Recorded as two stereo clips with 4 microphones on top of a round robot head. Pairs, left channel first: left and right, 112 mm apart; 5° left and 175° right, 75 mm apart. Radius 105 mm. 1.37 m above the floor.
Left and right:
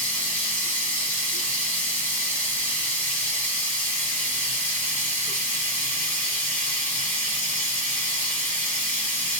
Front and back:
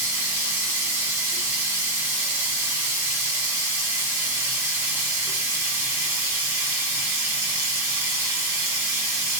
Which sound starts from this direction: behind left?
Running water, at 0.0 s.